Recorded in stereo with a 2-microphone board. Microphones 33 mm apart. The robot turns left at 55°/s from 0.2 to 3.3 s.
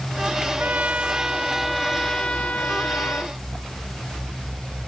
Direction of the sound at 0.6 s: 115° right.